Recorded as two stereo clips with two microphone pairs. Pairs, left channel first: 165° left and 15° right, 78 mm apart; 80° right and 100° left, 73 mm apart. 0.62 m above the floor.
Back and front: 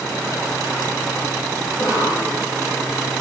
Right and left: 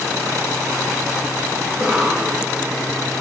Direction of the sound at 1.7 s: 175° right.